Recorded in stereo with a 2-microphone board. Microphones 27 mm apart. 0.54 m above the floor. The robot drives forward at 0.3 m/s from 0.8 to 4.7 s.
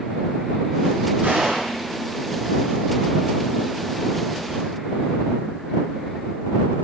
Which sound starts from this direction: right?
A gunshot, at 1.2 s.